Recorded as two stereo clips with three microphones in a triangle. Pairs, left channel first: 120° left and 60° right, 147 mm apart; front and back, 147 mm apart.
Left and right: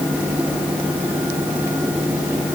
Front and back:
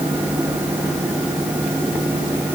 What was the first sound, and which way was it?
Only background noise.